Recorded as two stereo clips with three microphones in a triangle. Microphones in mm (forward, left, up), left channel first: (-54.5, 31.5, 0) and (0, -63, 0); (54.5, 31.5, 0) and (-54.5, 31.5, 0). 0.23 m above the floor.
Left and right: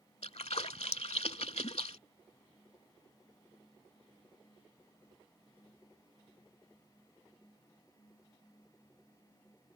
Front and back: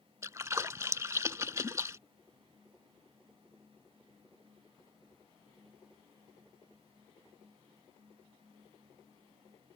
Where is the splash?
115° left.